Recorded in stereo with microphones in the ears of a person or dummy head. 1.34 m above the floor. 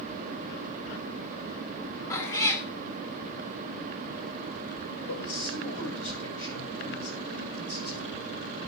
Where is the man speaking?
85° left, 9 m.